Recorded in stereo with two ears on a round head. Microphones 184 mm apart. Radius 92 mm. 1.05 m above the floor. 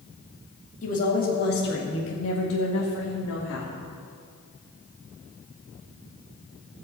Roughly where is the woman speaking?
Left.